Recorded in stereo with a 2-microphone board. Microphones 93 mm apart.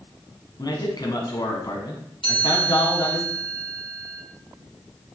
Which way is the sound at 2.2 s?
75° left (ahead or behind).